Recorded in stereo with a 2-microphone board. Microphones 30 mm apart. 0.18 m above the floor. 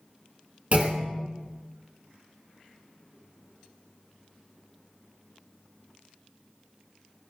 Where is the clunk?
45° right (ahead or behind), 0.6 m.